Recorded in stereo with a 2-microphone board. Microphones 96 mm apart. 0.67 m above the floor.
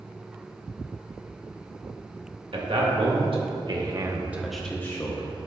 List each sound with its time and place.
2.5 s a man speaking: 70° right (ahead or behind), 2 m; by 5.3 s 40° left (ahead or behind), 1.1 m